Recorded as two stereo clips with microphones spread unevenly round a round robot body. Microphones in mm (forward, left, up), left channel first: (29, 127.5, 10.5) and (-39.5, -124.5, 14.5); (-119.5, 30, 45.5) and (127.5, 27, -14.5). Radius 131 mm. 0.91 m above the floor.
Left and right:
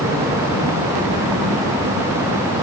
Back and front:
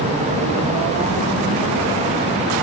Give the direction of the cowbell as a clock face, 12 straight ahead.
No cowbell in this recording.